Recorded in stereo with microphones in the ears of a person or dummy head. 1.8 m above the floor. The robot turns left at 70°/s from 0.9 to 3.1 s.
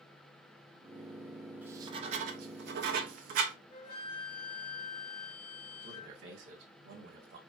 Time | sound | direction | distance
1.6 | writing | 10° right (ahead or behind) | 0.9 m
3.7 | a flute | 55° left (ahead or behind) | 2.0 m
5.8 | a man speaking | 70° right (ahead or behind) | 2 m